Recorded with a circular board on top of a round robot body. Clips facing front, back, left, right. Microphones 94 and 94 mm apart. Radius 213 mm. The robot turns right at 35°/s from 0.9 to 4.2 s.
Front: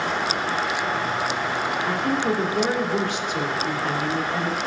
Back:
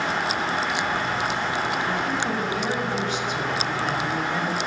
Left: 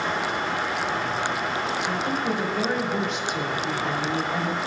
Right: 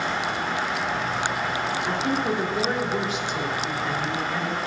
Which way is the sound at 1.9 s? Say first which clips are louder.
Front 2 dB, right 1 dB; 45° right.